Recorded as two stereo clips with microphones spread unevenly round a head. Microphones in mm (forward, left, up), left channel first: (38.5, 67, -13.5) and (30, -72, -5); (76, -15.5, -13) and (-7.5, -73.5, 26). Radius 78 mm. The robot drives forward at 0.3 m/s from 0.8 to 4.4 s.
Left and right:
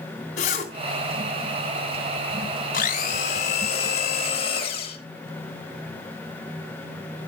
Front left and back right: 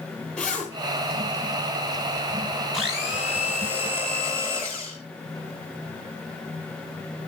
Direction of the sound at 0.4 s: 130° left.